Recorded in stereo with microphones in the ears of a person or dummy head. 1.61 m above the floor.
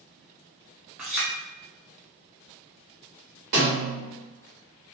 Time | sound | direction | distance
1.0 | a clink | 5° right (ahead or behind) | 0.6 m
3.5 | a snare drum | 40° right (ahead or behind) | 1.5 m